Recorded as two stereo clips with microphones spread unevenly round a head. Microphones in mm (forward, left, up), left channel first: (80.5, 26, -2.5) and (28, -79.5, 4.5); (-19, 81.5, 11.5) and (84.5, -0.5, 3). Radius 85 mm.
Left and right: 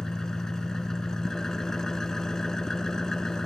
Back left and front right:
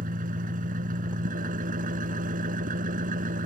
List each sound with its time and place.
0.0 s an engine running: 25° right